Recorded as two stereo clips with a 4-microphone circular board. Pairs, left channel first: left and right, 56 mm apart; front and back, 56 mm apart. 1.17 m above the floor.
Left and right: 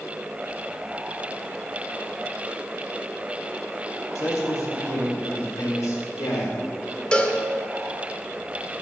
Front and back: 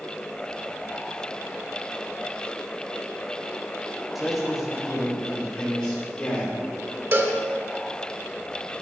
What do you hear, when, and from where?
4.2 s a man speaking: 95° left, 2.5 m; by 7.0 s 65° left, 3.5 m
7.1 s a cowbell: 155° left, 1.0 m